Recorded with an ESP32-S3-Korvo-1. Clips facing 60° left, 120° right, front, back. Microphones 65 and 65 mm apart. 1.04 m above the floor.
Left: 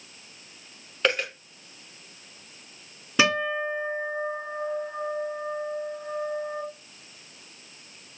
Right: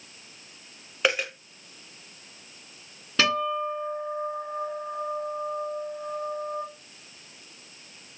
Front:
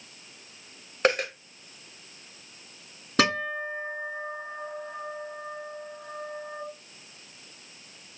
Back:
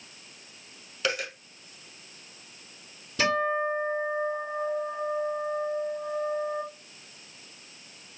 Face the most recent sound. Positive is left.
turn(degrees=-20)